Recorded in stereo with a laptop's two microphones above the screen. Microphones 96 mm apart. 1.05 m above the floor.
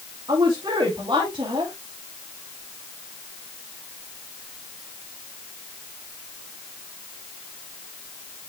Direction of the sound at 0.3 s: 50° right (ahead or behind).